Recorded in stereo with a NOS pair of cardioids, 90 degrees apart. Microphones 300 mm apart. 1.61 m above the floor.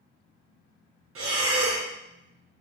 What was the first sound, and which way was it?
Breathing, 50° right.